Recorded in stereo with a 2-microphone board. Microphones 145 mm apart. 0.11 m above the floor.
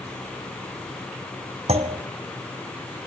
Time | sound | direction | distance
1.7 | a clunk | 50° right (ahead or behind) | 2 m